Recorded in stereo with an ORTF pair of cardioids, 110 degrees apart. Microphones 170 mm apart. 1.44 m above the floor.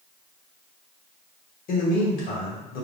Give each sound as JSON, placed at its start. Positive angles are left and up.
{"t": 1.7, "sound": "a man speaking", "azimuth_deg": 60, "distance_m": 1.9}